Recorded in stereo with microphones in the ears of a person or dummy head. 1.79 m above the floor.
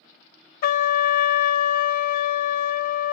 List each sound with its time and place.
0.6 s a trumpet: 50° left (ahead or behind), 0.6 m